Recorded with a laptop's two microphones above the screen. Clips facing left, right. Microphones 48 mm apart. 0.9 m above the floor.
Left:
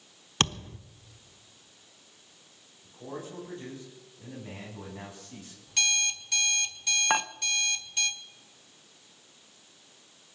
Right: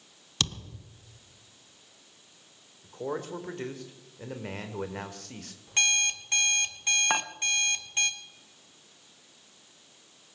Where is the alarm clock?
35° right (ahead or behind), 1.7 m.